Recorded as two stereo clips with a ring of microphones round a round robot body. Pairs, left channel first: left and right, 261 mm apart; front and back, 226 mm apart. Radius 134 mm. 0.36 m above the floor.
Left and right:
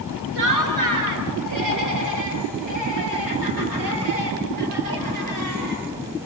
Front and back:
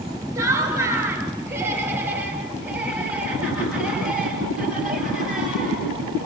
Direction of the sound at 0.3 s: 100° right.